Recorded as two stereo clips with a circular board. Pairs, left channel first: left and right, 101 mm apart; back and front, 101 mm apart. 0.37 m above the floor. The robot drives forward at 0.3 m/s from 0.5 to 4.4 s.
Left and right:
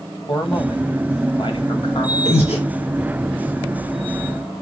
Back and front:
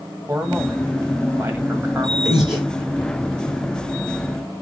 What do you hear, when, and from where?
0.3 s a man speaking: 60° left, 2 m; by 2.1 s 75° left, 1.8 m
2.2 s breathing: 85° left, 3 m